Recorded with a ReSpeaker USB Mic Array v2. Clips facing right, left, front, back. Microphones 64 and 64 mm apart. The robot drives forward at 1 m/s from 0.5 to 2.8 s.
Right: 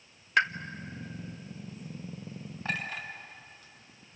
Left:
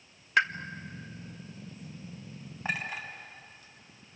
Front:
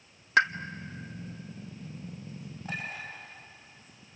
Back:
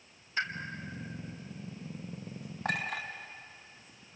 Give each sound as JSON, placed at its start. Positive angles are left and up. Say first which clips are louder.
{"t": 0.4, "sound": "a pop", "louder": "even, front 11 dB", "azimuth_deg": 0, "distance_m": 0.8}
{"t": 2.6, "sound": "a clink", "louder": "left 1 dB, back 4 dB", "azimuth_deg": 160, "distance_m": 4.0}